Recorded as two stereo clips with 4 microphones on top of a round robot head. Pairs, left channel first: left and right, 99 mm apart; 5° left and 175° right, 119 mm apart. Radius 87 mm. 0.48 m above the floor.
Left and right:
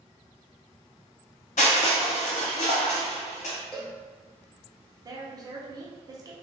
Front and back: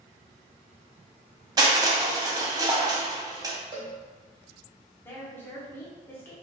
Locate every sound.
1.6 s crushing: 125° left, 0.6 m
3.7 s a cowbell: 170° left, 1.2 m
5.0 s a woman speaking: 60° right, 0.8 m